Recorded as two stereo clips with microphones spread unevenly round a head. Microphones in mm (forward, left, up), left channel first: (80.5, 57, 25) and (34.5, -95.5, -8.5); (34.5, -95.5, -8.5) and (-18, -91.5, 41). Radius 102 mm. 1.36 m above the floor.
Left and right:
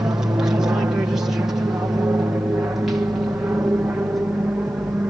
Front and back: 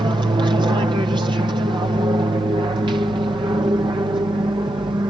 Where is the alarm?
No alarm in this recording.